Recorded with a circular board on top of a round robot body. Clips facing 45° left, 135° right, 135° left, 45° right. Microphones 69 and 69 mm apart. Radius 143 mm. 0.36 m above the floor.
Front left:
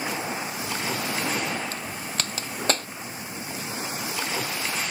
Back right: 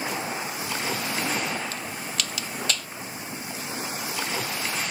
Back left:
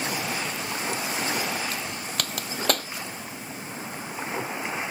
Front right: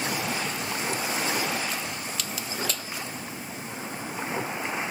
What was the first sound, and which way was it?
A crack, 95° left.